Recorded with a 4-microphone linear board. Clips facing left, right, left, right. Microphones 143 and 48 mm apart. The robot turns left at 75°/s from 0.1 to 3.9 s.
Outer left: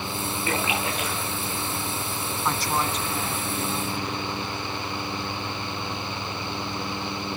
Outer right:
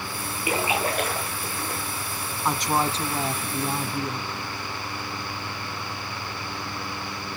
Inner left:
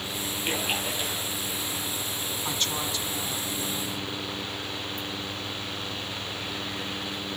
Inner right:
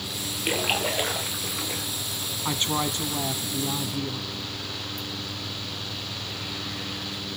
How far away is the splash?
About 5 m.